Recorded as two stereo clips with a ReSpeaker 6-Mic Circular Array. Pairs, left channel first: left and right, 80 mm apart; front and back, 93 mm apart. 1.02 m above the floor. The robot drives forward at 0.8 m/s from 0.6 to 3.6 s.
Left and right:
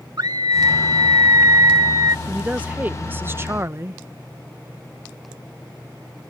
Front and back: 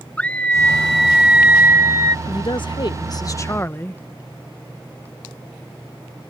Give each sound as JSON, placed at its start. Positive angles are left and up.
{"t": 0.2, "sound": "a scream", "azimuth_deg": -75}
{"t": 2.2, "sound": "a woman speaking", "azimuth_deg": -15}